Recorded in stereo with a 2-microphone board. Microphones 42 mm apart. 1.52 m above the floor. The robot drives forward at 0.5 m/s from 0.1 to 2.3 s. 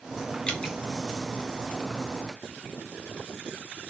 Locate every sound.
0.5 s dripping: 25° left (ahead or behind), 2 m